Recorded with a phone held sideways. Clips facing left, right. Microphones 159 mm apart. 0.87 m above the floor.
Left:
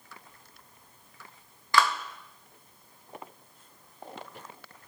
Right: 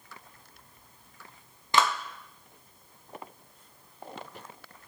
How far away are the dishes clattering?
No dishes clattering in this recording.